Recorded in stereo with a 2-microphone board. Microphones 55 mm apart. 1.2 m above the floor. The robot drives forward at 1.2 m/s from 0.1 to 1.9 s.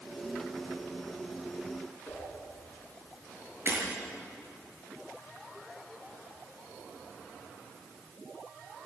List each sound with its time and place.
2.1 s a whoosh: 15° left (ahead or behind), 7 m
3.7 s breaking glass: 40° right (ahead or behind), 7 m